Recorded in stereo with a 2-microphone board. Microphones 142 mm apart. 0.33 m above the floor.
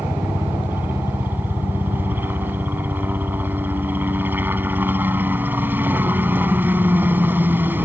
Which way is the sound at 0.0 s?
15° right (ahead or behind).